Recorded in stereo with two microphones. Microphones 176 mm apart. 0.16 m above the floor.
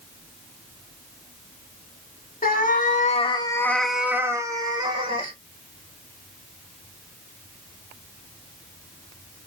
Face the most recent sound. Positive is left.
turn(degrees=-30)  # may be behind; listen again after turning